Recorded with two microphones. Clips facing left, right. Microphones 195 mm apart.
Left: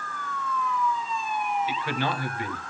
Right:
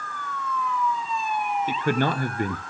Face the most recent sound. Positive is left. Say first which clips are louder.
# right 5 dB
turn(degrees=-45)  # may be behind; listen again after turning